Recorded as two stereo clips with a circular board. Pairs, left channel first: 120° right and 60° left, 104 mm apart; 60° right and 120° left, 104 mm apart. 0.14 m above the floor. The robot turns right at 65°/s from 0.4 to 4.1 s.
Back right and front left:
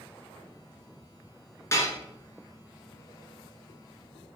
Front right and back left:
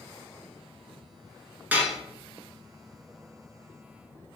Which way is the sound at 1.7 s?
170° right.